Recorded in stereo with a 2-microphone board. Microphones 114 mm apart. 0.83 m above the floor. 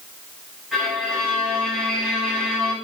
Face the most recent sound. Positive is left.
turn(degrees=-5)  # may be behind; listen again after turning